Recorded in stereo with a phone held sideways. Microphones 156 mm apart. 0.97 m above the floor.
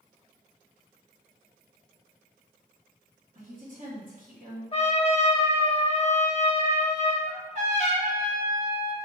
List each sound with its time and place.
3.4 s a woman speaking: 60° right (ahead or behind), 1.8 m
4.7 s a trumpet: 40° left (ahead or behind), 0.7 m
7.3 s a trumpet: 50° right (ahead or behind), 1.1 m